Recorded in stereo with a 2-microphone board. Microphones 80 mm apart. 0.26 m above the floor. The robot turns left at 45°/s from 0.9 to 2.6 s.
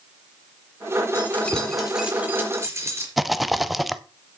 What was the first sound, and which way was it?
Keys jangling, 30° left.